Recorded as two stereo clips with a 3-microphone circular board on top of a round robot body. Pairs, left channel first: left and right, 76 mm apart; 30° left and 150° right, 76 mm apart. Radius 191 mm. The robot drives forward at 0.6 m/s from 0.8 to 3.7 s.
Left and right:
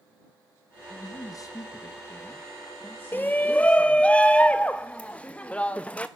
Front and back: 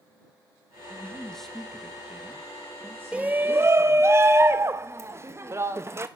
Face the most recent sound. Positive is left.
turn(degrees=160)